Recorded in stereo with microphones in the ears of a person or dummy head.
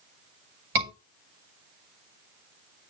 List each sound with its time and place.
0.8 s a scream: 55° right (ahead or behind), 8.5 m